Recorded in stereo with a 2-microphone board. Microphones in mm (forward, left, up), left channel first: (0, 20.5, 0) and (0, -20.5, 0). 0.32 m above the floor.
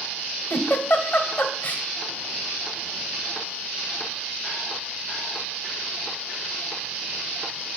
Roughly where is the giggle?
Left.